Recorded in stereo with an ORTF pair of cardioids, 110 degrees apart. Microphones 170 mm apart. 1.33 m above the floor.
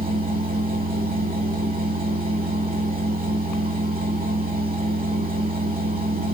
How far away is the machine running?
About 1.8 m.